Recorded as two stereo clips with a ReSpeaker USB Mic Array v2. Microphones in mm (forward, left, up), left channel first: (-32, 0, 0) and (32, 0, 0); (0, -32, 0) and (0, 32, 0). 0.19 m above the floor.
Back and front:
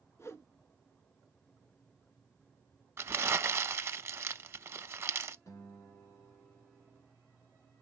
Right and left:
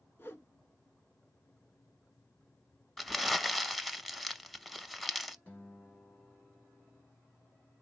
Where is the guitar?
155° right, 1.9 m.